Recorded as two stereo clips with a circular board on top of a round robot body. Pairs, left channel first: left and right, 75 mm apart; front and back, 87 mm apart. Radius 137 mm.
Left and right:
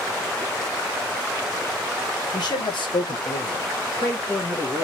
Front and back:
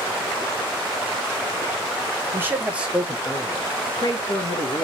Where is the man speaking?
115° left, 1.2 m; by 4.8 s 15° left, 1.3 m.